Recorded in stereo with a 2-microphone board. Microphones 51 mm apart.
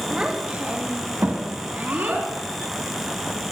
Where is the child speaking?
20° right (ahead or behind), 1.5 m; by 2.3 s 55° right (ahead or behind), 2.5 m.